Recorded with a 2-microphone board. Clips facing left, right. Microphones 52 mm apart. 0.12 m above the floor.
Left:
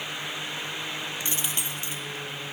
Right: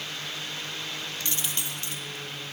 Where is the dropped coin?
20° left (ahead or behind), 1.2 m.